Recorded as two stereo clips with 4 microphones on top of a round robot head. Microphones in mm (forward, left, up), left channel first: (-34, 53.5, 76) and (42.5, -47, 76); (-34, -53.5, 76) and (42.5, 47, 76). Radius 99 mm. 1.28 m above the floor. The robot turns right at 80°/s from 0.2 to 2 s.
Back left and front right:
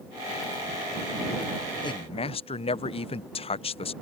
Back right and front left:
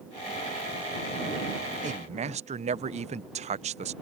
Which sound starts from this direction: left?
A man speaking, at 1.8 s.